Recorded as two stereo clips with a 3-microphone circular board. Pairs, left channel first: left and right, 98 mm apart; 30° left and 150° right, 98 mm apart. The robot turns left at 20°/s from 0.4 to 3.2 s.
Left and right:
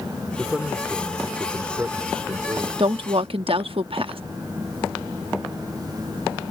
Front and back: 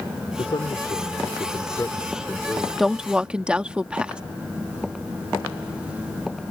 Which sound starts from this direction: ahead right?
A woman speaking, at 2.8 s.